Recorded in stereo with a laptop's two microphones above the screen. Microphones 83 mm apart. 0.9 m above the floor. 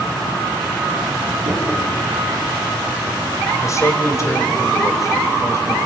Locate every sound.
1.4 s knocking: 75° right (ahead or behind), 7.5 m
3.6 s a man speaking: 35° left (ahead or behind), 3.5 m